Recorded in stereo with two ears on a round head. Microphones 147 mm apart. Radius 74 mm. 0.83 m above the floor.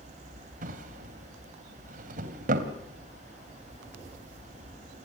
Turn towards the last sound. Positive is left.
turn(degrees=-50)  # may be behind; listen again after turning